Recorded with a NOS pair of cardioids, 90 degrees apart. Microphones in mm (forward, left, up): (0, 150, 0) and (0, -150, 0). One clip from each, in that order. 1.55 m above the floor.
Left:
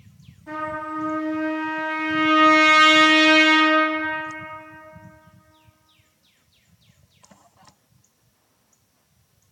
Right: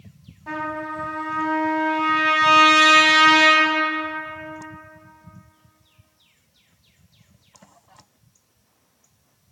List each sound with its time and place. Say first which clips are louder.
0.5 s a trumpet: right 1 dB; 65° right, 1.3 m